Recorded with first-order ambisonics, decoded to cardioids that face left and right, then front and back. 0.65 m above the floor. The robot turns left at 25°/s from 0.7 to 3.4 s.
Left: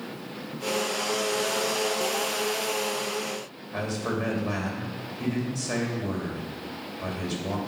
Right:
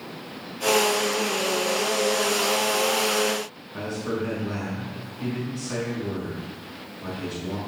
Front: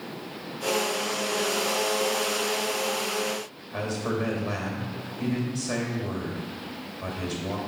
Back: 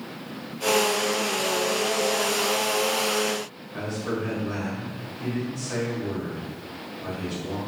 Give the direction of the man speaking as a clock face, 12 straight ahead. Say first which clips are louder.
Even, front 1 dB; 10 o'clock.